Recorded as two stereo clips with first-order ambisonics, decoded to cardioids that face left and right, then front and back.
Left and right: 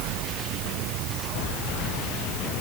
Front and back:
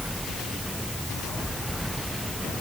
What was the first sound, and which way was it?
Only background noise.